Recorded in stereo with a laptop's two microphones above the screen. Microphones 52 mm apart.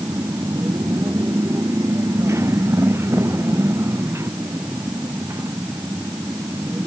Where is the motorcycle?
60° right (ahead or behind); by 6.9 s 45° right (ahead or behind).